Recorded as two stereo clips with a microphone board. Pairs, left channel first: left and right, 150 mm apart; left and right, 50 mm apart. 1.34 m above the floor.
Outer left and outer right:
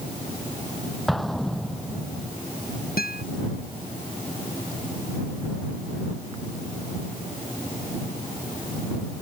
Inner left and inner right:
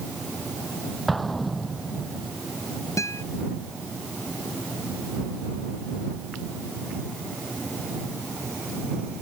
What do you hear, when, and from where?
1.1 s an explosion: centre (ahead or behind)
3.0 s a guitar: 80° left